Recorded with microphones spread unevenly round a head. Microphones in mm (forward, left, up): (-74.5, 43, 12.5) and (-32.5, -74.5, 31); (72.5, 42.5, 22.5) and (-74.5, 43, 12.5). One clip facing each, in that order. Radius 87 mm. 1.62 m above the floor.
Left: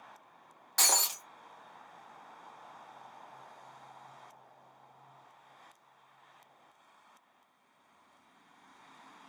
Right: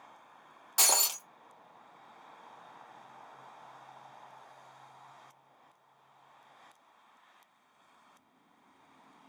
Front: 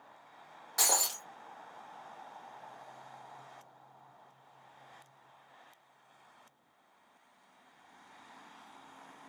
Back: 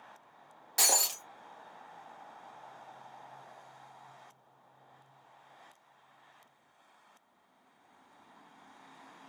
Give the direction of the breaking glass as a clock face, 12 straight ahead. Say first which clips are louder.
Right 1 dB, back 1 dB; 4 o'clock.